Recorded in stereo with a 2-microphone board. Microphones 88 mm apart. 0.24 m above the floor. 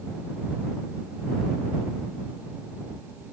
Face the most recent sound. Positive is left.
No sound to turn to.